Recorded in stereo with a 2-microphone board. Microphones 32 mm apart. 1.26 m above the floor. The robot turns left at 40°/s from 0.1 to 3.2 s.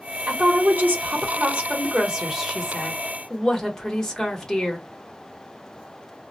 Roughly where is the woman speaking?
Right.